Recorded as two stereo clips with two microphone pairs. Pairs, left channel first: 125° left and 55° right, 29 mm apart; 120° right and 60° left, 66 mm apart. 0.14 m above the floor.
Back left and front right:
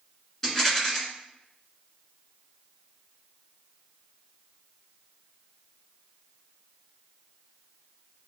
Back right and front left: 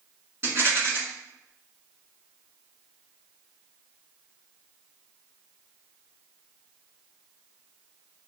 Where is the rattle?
55° left, 1.2 m.